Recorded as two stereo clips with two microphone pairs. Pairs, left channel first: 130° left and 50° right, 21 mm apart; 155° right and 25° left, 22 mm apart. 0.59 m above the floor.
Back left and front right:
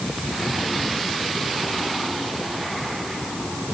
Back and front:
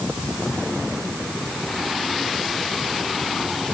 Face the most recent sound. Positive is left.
No sound to turn to.